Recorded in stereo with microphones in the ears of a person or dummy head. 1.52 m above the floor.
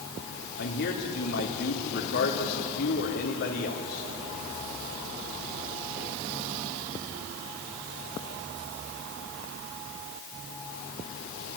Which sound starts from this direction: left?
A man speaking, at 0.6 s.